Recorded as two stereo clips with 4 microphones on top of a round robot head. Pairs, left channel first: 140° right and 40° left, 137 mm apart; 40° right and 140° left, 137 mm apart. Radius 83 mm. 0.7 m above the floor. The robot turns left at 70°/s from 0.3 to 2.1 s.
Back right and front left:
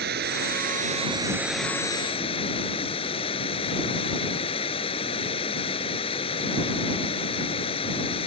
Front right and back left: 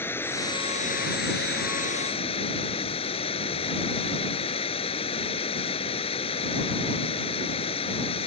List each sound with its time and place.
0.0 s running water: 35° left; by 8.3 s 90° right